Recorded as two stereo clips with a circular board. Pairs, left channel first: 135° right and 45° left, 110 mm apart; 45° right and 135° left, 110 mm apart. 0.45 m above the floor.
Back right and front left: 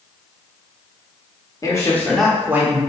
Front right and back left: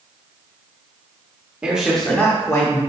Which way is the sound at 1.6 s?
155° right.